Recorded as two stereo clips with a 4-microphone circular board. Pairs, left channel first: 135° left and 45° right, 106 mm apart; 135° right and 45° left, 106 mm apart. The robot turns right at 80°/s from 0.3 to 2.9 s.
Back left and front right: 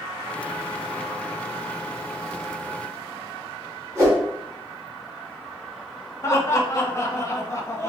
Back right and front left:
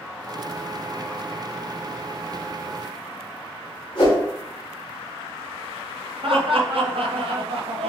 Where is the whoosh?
100° right, 2 m.